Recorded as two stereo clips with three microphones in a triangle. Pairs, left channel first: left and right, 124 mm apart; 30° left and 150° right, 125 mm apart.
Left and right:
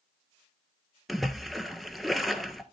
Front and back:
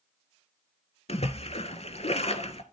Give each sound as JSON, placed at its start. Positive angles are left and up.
{"t": 1.1, "sound": "a splash", "azimuth_deg": 0, "distance_m": 1.1}